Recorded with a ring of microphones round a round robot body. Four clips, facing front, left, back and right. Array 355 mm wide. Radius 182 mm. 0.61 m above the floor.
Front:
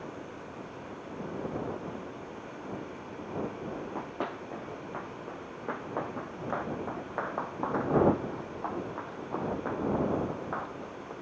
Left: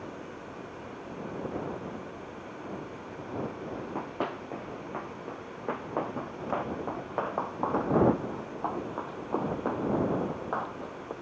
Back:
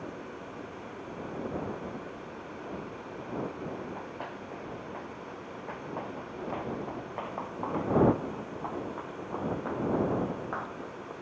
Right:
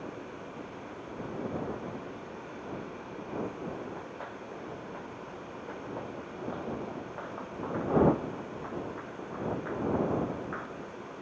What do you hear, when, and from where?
3.8 s running footsteps: 60° left; by 11.1 s 95° left